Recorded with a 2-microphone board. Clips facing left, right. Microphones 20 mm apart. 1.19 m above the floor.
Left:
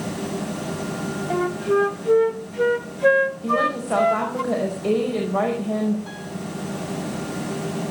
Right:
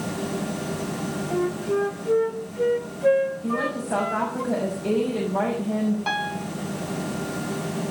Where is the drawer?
No drawer in this recording.